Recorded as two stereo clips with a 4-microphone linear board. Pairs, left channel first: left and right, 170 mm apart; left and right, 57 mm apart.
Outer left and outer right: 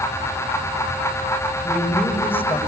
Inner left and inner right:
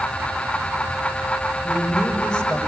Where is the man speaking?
10° left (ahead or behind), 6.5 m.